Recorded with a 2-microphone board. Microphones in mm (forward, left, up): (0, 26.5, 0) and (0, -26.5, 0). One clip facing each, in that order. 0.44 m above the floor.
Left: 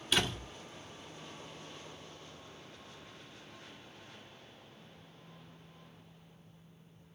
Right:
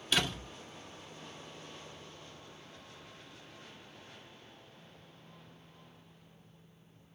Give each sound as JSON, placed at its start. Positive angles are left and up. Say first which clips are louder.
{"t": 0.1, "sound": "a door slam", "louder": "even", "side_deg": 0, "distance_m": 1.5}